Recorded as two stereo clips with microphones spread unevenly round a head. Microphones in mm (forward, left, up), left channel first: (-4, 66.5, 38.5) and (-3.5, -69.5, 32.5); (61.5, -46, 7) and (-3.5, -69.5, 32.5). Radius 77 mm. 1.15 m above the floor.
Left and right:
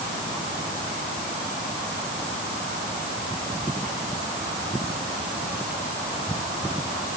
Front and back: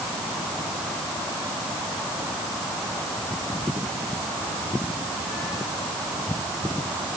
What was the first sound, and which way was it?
Only background noise.